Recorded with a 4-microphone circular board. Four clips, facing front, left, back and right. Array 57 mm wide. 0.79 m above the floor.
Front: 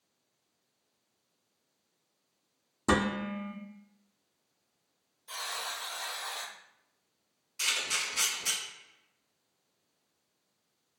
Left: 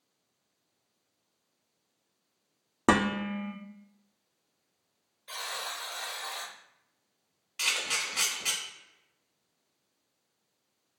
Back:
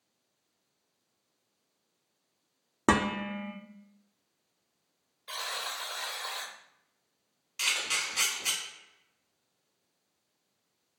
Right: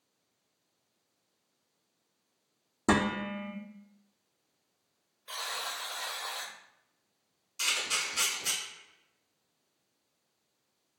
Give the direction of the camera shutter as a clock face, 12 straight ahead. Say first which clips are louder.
Left 1 dB, back 1 dB; 8 o'clock.